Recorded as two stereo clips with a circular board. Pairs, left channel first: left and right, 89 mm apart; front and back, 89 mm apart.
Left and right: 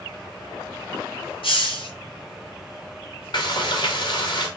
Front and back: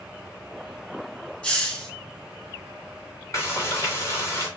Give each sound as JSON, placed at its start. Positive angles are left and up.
{"t": 1.4, "sound": "a hiss", "azimuth_deg": 75, "distance_m": 3.5}
{"t": 3.3, "sound": "frying", "azimuth_deg": 55, "distance_m": 3.0}